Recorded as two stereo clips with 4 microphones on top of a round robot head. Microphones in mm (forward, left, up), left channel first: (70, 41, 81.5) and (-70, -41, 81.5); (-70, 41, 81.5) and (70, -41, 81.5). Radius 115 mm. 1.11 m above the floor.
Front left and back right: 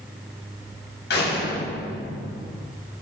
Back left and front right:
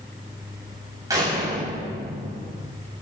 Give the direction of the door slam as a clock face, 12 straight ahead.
11 o'clock.